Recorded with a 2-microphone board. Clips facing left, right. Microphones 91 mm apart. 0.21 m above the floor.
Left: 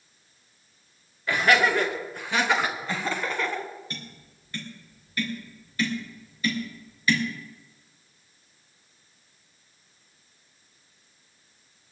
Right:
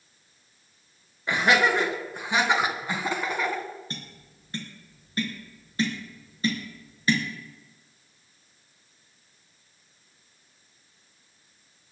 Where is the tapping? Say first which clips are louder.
Even; 30° right (ahead or behind), 3.5 m.